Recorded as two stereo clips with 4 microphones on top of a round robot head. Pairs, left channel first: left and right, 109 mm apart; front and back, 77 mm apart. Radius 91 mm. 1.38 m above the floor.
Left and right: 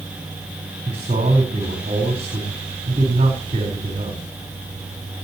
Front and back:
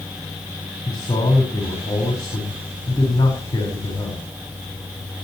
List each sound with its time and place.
0.8 s a man speaking: 50° right, 4.5 m